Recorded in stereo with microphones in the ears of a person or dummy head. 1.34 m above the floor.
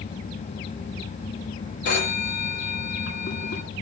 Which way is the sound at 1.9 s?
50° left (ahead or behind).